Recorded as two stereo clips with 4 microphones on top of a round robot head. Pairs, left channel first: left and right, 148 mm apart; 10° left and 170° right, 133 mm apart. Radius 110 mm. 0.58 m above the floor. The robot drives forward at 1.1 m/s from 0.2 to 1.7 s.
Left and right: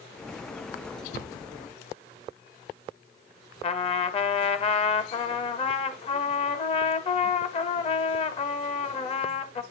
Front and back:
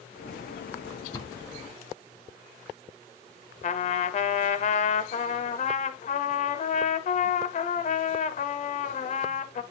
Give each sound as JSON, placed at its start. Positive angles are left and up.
{"t": 1.1, "sound": "a cupboard door", "azimuth_deg": 70, "distance_m": 2.0}
{"t": 3.6, "sound": "a trumpet", "azimuth_deg": 40, "distance_m": 0.7}